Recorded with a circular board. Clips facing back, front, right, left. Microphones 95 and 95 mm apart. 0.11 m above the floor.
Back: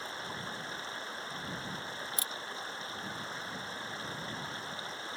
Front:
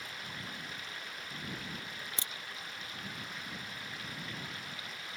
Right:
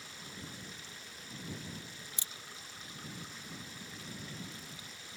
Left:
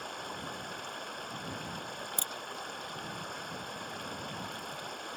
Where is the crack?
60° left.